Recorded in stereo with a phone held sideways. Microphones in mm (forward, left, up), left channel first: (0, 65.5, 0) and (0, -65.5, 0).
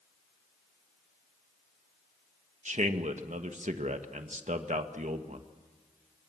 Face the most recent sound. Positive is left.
turn(degrees=-70)  # may be behind; listen again after turning